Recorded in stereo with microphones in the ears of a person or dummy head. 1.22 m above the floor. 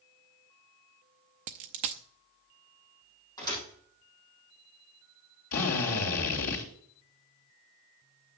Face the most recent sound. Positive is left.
turn(degrees=80)